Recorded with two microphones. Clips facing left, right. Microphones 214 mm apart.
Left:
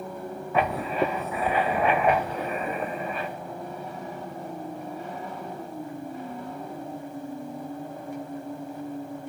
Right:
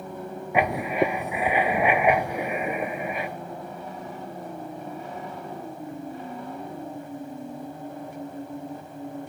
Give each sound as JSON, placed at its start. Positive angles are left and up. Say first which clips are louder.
{"t": 0.5, "sound": "writing", "louder": "right 2 dB", "side_deg": -15, "distance_m": 0.5}